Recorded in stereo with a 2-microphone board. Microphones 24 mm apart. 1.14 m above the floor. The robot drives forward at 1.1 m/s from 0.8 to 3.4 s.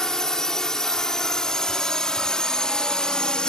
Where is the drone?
25° left (ahead or behind); by 3.5 s 35° left (ahead or behind).